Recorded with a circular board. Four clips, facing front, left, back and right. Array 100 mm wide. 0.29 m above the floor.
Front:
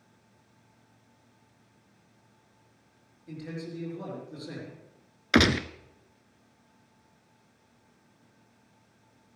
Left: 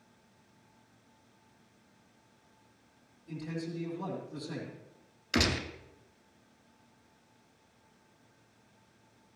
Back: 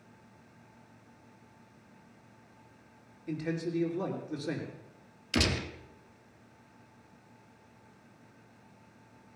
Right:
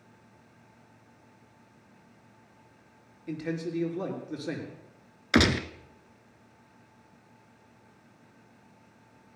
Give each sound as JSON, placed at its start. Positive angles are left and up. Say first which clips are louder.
{"t": 3.3, "sound": "a man speaking", "louder": "right 6 dB, back 5 dB", "azimuth_deg": -120, "distance_m": 5.0}
{"t": 5.3, "sound": "a gunshot", "louder": "right 7 dB, front 8 dB", "azimuth_deg": -30, "distance_m": 0.8}